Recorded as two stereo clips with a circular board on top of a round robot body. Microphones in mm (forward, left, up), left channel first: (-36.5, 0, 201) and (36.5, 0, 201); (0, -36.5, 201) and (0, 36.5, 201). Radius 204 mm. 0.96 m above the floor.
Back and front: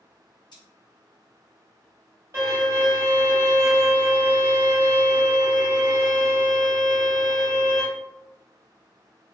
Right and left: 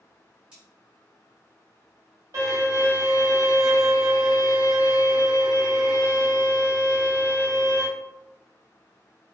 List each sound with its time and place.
0.5 s cutlery clinking: 165° left, 1.0 m
2.3 s a violin: 55° left, 1.0 m